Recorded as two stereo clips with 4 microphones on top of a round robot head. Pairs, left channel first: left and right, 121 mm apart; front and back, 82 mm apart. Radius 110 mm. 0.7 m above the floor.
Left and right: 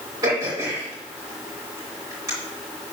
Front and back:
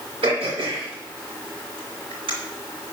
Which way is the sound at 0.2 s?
155° right.